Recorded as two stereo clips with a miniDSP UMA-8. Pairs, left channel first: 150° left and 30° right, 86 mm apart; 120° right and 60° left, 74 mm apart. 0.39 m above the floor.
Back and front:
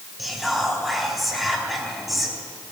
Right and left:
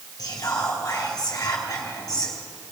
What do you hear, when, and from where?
0.2 s whispering: 120° right, 3 m